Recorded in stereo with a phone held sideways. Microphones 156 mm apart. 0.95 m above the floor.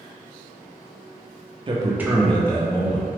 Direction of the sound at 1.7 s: 35° right (ahead or behind).